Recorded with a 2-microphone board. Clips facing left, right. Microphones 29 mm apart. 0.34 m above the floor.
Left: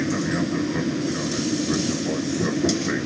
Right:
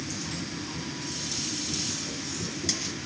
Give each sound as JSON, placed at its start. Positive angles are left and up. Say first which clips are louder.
{"t": 0.0, "sound": "an aircraft", "louder": "left 12 dB", "side_deg": 65}